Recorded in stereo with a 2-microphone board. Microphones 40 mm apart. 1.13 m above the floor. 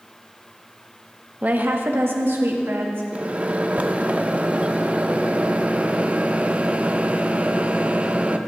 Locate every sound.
1.4 s a woman speaking: 40° right (ahead or behind), 0.9 m; by 3.0 s 80° right, 2 m
3.1 s a microwave: 35° right (ahead or behind), 0.5 m